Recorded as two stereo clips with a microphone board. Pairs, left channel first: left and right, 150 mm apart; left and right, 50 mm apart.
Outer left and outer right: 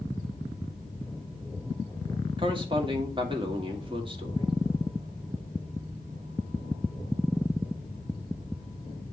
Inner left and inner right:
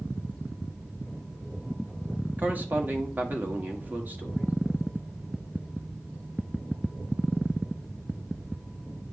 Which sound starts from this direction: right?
A man speaking, at 2.4 s.